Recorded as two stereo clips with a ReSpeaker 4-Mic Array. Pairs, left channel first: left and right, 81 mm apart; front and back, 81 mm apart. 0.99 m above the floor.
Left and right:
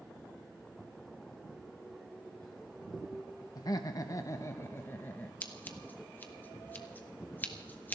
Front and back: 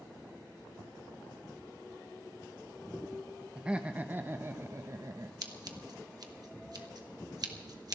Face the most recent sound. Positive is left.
turn(degrees=155)